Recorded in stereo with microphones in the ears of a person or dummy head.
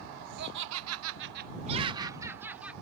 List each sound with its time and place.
0.4 s laughter: 60° right (ahead or behind); by 2.7 s 5° right (ahead or behind)